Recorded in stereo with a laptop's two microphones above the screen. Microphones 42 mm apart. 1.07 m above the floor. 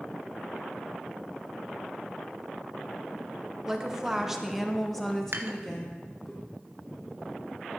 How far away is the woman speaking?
About 1.3 m.